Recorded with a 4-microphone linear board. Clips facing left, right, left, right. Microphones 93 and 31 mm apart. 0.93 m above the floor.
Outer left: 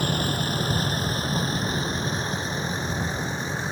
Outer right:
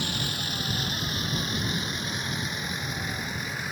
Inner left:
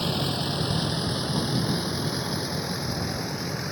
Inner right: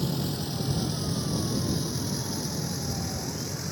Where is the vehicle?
45° left (ahead or behind); by 3.7 s 30° left (ahead or behind).